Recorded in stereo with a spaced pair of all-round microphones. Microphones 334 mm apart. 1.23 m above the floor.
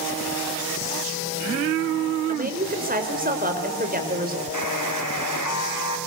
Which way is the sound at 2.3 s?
25° right (ahead or behind).